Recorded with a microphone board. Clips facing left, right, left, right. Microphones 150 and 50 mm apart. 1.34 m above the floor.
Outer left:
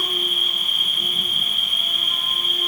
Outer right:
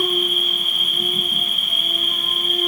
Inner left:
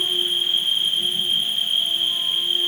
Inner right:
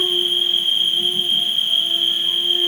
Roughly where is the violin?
I don't hear a violin.